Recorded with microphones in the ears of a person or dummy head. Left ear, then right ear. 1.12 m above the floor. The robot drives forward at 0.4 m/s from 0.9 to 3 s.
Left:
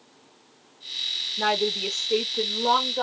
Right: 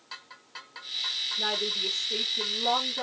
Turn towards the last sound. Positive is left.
turn(degrees=35)  # may be behind; listen again after turning